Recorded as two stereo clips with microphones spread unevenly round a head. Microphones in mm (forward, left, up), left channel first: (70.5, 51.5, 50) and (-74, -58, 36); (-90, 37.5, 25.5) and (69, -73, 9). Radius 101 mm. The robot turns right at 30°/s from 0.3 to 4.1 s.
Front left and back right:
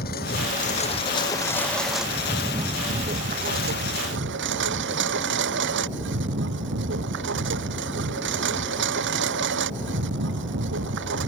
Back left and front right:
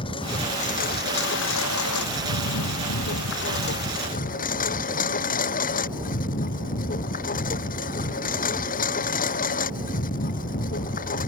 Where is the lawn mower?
80° left; by 11.3 s 165° right.